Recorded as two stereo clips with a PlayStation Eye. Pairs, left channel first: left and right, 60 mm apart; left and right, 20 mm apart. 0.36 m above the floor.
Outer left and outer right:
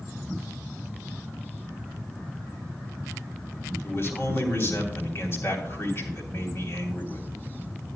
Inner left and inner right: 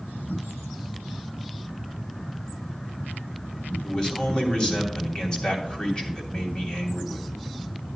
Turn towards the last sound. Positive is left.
turn(degrees=40)  # may be behind; listen again after turning